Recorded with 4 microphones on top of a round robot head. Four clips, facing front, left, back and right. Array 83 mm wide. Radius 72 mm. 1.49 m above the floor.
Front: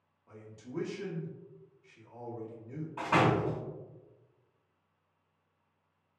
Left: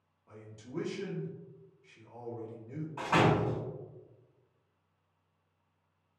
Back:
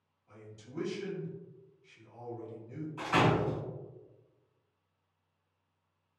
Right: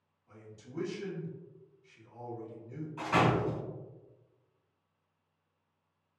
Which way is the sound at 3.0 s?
25° left.